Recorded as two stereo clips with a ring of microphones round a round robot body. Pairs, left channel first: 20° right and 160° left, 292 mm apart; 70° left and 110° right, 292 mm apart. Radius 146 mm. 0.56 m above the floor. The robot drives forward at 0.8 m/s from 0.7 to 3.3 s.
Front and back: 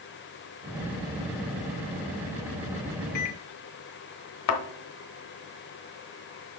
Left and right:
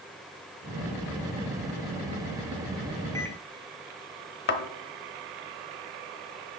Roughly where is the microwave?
Ahead.